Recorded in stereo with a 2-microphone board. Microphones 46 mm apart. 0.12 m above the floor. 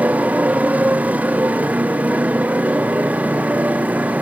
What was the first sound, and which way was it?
A motorcycle, 30° right (ahead or behind).